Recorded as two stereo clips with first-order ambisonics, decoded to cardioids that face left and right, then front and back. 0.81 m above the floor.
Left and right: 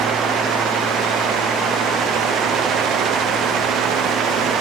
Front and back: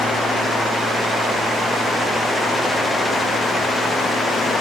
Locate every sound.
Only background noise.